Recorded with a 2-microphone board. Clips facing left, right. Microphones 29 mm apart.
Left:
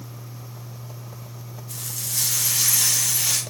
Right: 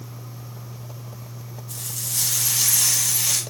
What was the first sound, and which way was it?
Frying, 5° left (ahead or behind).